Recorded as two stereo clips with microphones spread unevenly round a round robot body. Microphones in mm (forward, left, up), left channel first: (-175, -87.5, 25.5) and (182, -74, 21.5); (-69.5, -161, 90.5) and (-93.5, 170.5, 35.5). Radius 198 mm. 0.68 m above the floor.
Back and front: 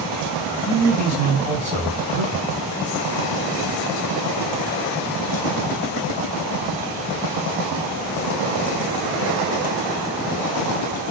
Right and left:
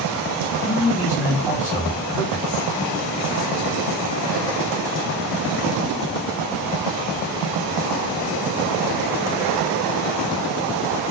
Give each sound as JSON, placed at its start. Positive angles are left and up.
{"t": 0.7, "sound": "a man speaking", "azimuth_deg": -35, "distance_m": 1.1}